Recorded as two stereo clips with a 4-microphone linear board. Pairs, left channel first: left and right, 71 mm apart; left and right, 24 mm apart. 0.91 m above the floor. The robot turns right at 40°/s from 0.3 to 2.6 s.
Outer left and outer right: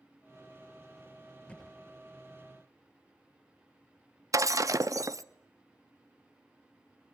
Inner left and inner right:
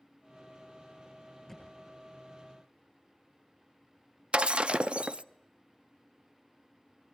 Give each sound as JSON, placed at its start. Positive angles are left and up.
{"t": 1.5, "sound": "a thud", "side_deg": 20, "distance_m": 9.0}
{"t": 4.3, "sound": "breaking glass", "side_deg": -50, "distance_m": 0.7}